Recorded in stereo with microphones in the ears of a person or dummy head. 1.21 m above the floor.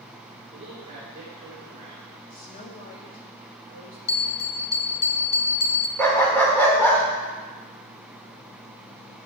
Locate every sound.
0.5 s a man speaking: 30° right (ahead or behind), 3.5 m
2.3 s a woman speaking: 45° left (ahead or behind), 1.9 m
4.1 s a bell: 30° left (ahead or behind), 0.6 m
6.0 s a dog barking: 15° left (ahead or behind), 1.7 m